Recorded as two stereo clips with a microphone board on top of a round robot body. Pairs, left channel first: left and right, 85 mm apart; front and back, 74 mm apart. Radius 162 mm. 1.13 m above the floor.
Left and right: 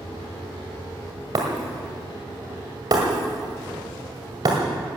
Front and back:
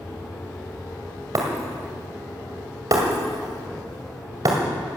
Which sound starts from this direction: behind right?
Breaking glass, at 1.4 s.